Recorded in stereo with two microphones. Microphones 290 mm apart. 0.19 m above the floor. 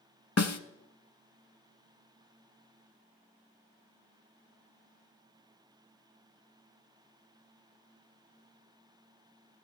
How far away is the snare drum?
About 0.6 m.